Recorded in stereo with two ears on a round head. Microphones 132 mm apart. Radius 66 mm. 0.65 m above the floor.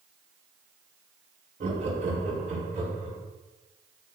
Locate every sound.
1.6 s laughter: 50° right (ahead or behind), 2.5 m; by 3.2 s 55° right (ahead or behind), 3.5 m